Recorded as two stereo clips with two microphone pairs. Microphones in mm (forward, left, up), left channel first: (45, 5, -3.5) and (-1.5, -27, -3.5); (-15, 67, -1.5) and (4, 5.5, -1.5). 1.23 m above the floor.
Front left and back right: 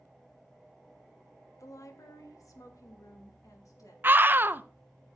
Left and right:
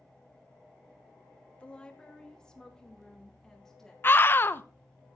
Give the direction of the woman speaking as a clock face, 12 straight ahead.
11 o'clock.